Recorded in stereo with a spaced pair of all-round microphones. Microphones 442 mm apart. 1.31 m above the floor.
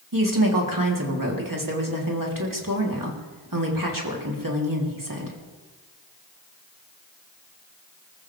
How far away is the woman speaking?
About 3.5 m.